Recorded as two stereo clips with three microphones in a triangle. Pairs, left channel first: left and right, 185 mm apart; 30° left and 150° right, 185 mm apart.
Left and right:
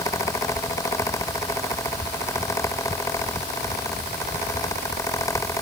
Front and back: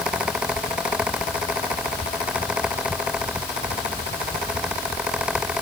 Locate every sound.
Only background noise.